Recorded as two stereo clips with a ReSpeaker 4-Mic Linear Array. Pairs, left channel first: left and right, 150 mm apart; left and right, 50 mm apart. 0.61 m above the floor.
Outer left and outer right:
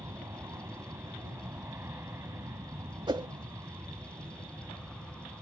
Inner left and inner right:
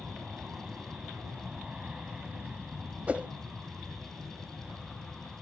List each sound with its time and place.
0.0 s an aircraft: 20° right (ahead or behind)
3.1 s a whoosh: 30° right (ahead or behind)